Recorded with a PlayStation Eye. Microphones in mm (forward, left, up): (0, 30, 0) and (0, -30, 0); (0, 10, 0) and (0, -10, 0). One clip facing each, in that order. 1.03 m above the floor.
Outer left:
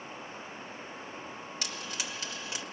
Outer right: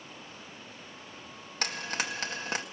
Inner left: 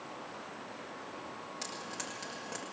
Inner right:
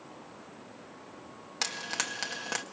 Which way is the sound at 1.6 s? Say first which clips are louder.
Outer right 8 dB, inner right 10 dB; 55° right (ahead or behind).